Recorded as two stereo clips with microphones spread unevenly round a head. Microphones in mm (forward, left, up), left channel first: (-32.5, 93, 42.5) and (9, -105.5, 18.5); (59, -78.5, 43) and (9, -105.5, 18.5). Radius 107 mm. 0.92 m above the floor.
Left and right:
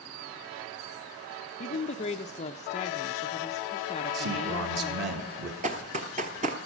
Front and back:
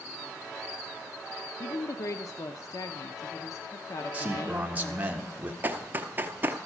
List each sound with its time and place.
1.6 s a woman speaking: 60° left, 0.6 m
4.1 s a man speaking: 100° right, 1.6 m
5.6 s running footsteps: 75° right, 0.9 m